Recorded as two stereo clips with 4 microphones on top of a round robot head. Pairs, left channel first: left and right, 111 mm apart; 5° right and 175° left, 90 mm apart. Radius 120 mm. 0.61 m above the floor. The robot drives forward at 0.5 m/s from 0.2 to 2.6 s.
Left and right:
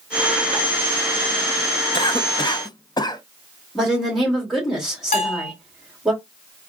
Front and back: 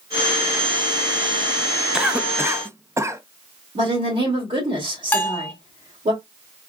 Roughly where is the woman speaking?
Behind.